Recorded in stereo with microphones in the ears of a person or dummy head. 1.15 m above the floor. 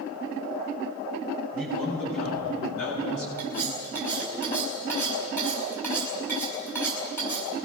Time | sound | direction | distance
1.5 | a man speaking | 60° left (ahead or behind) | 7 m
3.4 | cutlery clinking | 10° left (ahead or behind) | 4.5 m